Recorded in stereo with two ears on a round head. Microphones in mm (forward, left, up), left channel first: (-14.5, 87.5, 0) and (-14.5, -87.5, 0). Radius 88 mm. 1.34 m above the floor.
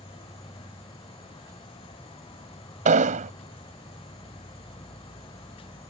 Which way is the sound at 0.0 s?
20° left (ahead or behind).